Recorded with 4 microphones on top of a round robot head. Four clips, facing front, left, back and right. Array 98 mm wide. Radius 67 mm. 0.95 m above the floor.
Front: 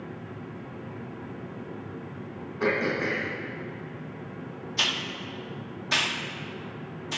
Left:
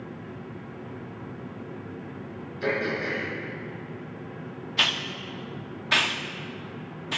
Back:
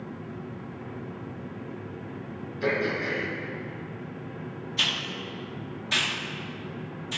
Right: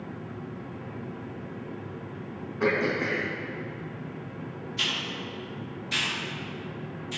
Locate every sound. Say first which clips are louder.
2.6 s throat clearing: right 2 dB, front 1 dB; 45° right, 3 m
4.8 s a hiss: left 5 dB, front 1 dB; 65° left, 0.9 m